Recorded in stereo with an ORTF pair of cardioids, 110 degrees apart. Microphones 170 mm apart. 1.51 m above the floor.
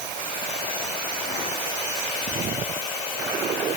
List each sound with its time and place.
Only background noise.